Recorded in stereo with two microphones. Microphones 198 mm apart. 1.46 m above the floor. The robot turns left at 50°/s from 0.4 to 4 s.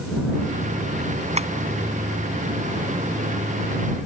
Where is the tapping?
35° right (ahead or behind); by 1.5 s 30° right (ahead or behind).